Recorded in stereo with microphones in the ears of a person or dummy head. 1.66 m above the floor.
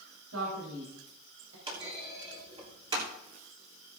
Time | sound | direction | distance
0.3 | a man speaking | 85° right | 4 m
1.7 | a clunk | 30° right (ahead or behind) | 3 m